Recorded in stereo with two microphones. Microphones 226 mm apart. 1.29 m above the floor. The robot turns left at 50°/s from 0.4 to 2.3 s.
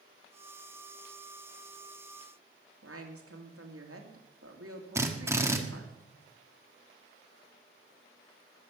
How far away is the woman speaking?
About 2.5 m.